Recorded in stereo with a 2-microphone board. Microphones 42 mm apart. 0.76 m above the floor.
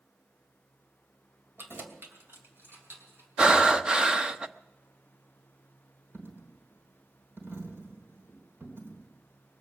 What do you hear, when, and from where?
1.6 s keys jangling: 70° right (ahead or behind), 2.5 m; by 3.3 s 65° right (ahead or behind), 4 m
3.4 s breathing: 20° right (ahead or behind), 0.8 m
6.1 s a dropped coin: 70° right (ahead or behind), 3.5 m